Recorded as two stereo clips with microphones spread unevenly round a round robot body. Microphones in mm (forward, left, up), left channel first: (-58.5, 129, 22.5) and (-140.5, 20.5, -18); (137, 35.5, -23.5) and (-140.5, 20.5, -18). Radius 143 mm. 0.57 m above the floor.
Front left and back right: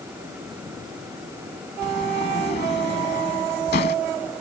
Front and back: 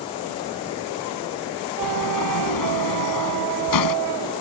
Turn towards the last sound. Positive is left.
turn(degrees=10)